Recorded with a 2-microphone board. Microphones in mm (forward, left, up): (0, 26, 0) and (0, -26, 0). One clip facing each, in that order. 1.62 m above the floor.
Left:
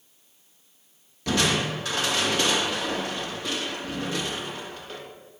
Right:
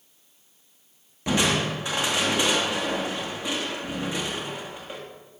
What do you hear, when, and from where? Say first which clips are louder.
1.3 s crushing: right 1 dB; 20° right (ahead or behind), 2.5 m